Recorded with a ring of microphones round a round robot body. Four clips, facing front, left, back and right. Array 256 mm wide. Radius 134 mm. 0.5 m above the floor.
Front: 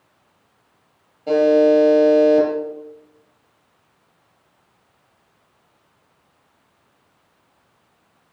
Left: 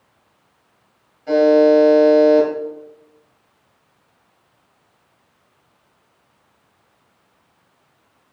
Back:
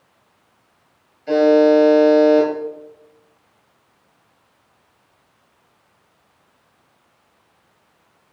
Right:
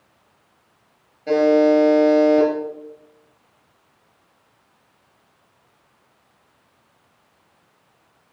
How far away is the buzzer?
About 4 m.